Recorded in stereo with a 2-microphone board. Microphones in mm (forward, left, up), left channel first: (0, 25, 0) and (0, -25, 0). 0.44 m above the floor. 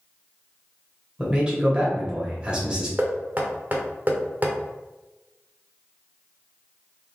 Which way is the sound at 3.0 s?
35° right (ahead or behind).